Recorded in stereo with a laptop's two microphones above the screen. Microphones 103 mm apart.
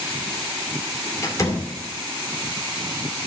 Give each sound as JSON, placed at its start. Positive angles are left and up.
{"t": 1.2, "sound": "a door slam", "side_deg": 35, "distance_m": 2.0}